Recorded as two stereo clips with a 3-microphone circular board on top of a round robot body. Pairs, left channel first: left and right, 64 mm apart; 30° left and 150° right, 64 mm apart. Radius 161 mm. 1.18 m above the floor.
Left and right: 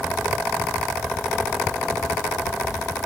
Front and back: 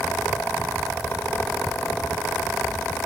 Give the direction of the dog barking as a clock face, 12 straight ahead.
No dog barking in this recording.